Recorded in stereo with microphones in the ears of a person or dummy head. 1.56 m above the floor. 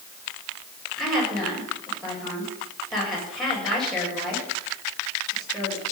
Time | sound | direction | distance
1.0 | a woman speaking | centre (ahead or behind) | 7.5 m